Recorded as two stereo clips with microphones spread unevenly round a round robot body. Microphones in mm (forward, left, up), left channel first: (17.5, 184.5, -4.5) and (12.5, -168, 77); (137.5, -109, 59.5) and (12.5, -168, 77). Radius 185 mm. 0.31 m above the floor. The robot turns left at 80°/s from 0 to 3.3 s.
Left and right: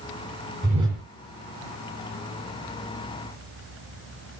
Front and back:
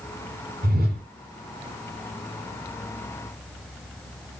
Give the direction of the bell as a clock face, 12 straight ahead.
No bell in this recording.